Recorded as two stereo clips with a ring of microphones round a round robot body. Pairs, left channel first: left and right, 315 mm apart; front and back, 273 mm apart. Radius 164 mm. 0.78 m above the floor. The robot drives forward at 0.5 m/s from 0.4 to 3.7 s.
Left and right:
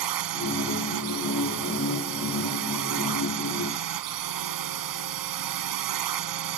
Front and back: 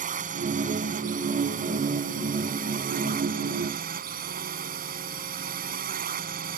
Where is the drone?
115° right.